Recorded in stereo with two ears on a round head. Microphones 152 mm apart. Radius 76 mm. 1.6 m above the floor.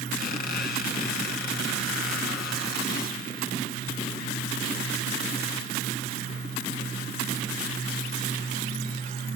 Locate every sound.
0.2 s a squeak: 60° left (ahead or behind), 3 m